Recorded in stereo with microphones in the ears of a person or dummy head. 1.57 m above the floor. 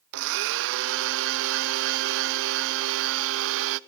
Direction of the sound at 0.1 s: 70° right (ahead or behind).